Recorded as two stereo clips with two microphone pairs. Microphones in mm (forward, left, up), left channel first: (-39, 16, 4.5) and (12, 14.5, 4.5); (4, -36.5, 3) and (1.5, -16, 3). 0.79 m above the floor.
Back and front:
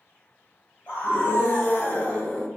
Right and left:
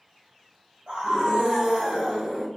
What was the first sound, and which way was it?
A scream, 135° left.